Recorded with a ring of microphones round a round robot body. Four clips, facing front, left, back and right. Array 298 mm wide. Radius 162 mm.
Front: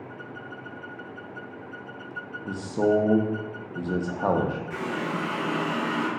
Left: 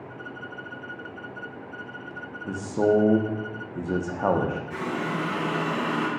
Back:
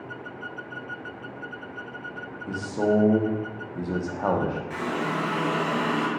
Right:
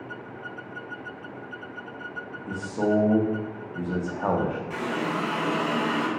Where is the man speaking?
65° left, 0.6 m.